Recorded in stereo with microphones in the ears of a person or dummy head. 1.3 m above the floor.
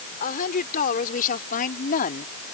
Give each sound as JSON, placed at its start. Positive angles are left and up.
{"t": 0.2, "sound": "a woman speaking", "side_deg": 45}